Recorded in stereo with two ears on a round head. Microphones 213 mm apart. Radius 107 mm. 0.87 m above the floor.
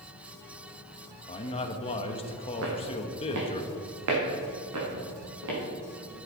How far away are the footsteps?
About 3 m.